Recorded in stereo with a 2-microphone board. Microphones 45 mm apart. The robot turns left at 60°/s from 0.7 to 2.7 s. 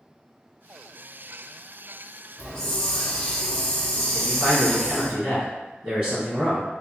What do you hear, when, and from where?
2.4 s a hiss: 15° left (ahead or behind), 1.3 m; by 5.1 s 20° left (ahead or behind), 1.3 m
4.1 s a man speaking: 25° right (ahead or behind), 1.7 m